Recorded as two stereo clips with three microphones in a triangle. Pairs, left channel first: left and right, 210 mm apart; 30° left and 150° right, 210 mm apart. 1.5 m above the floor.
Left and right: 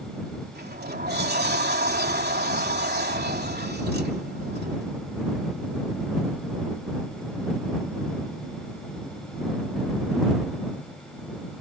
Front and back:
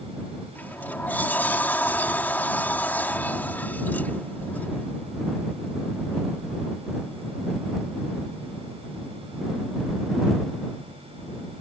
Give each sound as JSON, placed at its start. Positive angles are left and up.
{"t": 0.6, "sound": "a sliding door", "azimuth_deg": -50}